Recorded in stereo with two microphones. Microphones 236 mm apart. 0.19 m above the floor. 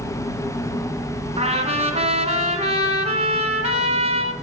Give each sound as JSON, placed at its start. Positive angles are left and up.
{"t": 1.4, "sound": "a trumpet", "side_deg": -25, "distance_m": 2.0}